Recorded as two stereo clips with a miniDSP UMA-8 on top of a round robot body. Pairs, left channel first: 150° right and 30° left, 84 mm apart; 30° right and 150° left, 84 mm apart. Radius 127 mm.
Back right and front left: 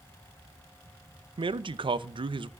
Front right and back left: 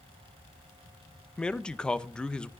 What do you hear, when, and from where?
1.4 s a man speaking: 50° left, 0.8 m